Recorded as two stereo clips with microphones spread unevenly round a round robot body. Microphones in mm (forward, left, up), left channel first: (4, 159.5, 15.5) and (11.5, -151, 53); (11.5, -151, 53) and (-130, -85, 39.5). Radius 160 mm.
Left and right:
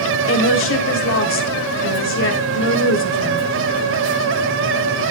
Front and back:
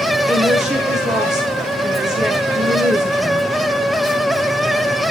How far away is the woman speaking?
About 1.9 m.